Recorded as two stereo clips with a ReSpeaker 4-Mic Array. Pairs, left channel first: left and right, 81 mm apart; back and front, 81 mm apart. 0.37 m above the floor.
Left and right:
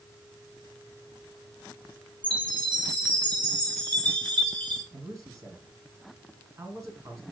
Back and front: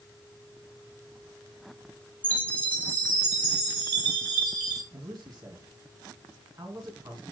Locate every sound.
2.2 s a chime: 110° right, 5 m
4.9 s a man speaking: 40° right, 3 m